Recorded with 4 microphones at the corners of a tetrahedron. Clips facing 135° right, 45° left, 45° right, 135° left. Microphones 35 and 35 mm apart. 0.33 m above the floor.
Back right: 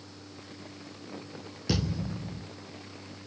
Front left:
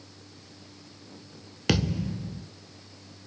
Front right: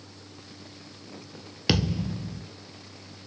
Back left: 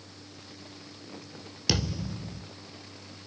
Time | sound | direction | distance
1.7 | a thud | 20° left | 1.4 m